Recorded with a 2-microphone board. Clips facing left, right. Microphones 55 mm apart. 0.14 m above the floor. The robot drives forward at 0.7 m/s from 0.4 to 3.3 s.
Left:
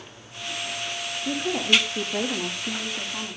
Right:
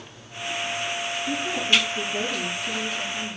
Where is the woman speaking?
70° left (ahead or behind), 8.5 m; by 3.4 s 75° left (ahead or behind), 8.5 m.